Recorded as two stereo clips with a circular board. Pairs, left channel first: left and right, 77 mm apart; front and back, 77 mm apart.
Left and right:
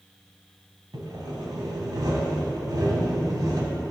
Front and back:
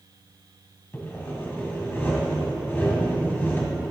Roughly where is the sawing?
Ahead right.